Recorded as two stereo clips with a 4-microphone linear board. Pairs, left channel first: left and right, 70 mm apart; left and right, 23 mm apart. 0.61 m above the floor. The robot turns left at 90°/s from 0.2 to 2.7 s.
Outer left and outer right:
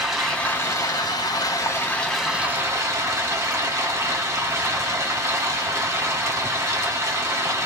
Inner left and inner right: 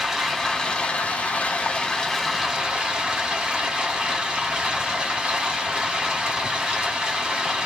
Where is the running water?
Straight behind, 1.1 m; by 7.7 s 45° right, 1.1 m.